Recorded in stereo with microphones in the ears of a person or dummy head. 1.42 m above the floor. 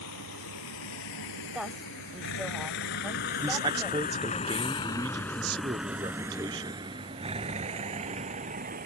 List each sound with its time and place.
0.0 s a vehicle: 85° left; by 8.9 s 40° right (ahead or behind)
1.5 s a woman speaking: 5° right (ahead or behind)
3.4 s a man speaking: 25° right (ahead or behind)